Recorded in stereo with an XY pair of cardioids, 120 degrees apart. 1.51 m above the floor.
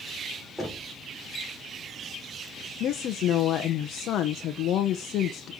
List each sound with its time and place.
0.6 s knocking: straight ahead, 4 m
2.8 s a woman speaking: 65° left, 1.1 m